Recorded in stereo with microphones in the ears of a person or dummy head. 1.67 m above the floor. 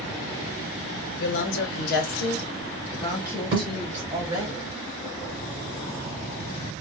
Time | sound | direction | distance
1.2 | a woman speaking | 65° left (ahead or behind) | 1.3 m
3.5 | a thud | 30° right (ahead or behind) | 1.8 m